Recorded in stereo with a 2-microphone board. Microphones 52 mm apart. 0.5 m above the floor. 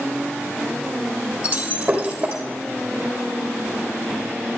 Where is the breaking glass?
25° right (ahead or behind), 3 m.